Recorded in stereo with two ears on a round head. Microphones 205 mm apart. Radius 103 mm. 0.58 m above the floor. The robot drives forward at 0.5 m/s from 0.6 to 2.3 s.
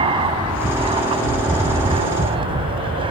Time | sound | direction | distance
0.0 | an aircraft | 25° right (ahead or behind) | ?